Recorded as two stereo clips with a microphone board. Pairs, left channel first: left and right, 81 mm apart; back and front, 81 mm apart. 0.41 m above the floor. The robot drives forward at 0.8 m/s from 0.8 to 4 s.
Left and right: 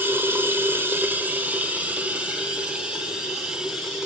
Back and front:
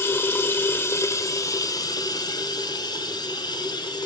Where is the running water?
140° right, 1.2 m; by 4.1 s 170° right, 3.5 m.